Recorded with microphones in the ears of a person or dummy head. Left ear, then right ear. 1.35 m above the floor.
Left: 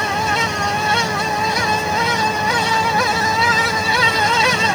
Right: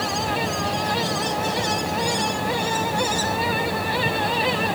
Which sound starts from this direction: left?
A fan, at 0.0 s.